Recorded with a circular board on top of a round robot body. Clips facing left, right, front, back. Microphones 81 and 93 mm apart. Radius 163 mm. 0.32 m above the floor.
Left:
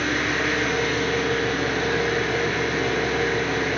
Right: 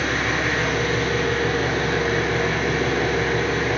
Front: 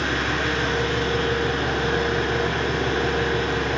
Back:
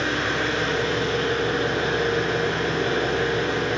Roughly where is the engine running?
Ahead right.